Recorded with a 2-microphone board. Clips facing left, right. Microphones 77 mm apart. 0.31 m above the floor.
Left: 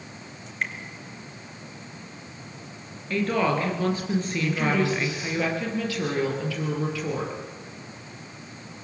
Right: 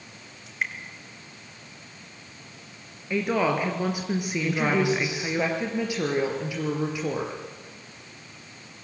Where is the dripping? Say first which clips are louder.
Even; 5° right (ahead or behind), 3.5 m.